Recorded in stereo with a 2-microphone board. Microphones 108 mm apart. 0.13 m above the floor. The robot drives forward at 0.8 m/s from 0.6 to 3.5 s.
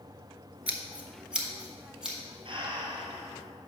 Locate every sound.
0.7 s scissors: 10° right (ahead or behind), 0.8 m; by 2.2 s 5° right (ahead or behind), 1.9 m
2.5 s breathing: 50° right (ahead or behind), 1.3 m; by 3.3 s 35° right (ahead or behind), 1.7 m